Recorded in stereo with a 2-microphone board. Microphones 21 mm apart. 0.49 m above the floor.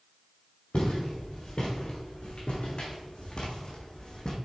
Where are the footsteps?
80° left, 3 m; by 4.3 s 40° left (ahead or behind), 1.5 m.